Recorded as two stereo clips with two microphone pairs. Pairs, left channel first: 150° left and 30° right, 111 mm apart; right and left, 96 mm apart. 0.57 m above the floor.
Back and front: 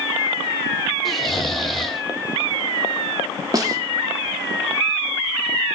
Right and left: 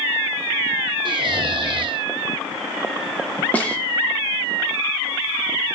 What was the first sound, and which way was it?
Snoring, 65° left.